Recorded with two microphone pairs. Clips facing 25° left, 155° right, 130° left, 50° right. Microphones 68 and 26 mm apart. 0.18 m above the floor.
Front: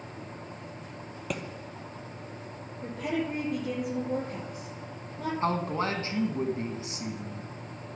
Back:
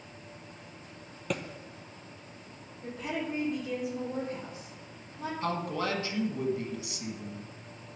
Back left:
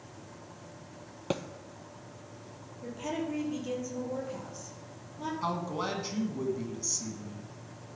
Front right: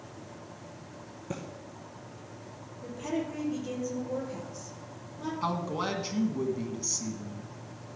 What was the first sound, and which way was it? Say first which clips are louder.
A thud: back 1 dB, back left 6 dB; 110° left.